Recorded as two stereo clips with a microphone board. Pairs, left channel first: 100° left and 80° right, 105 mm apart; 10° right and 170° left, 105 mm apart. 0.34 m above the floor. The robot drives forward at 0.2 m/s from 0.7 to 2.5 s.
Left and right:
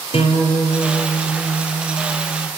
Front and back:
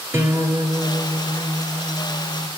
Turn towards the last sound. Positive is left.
turn(degrees=125)